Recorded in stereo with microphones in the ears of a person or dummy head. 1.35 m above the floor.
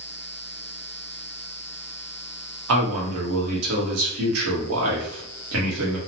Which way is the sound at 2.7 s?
75° right (ahead or behind).